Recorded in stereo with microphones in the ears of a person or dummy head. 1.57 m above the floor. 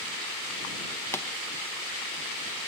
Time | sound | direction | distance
1.1 | a pop | 15° left (ahead or behind) | ?